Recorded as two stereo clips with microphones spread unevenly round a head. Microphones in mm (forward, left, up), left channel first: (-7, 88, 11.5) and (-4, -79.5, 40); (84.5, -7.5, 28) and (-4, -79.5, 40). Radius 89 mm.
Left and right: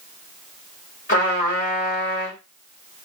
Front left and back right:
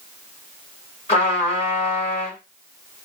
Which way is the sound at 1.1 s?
50° left.